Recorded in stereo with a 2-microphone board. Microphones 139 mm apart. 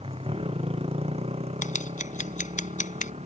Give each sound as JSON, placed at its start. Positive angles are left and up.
{"t": 0.0, "sound": "a motorcycle", "side_deg": -45}
{"t": 1.6, "sound": "scissors", "side_deg": 70}